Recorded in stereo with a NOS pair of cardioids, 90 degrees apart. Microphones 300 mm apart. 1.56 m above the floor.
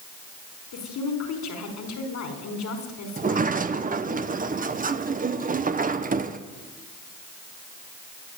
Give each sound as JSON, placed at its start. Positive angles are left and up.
{"t": 0.7, "sound": "a woman speaking", "azimuth_deg": 70, "distance_m": 5.0}
{"t": 3.2, "sound": "a sliding door", "azimuth_deg": -25, "distance_m": 1.1}